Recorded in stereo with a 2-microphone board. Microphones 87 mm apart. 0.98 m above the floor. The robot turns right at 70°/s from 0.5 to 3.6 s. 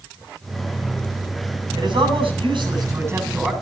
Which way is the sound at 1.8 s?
125° right.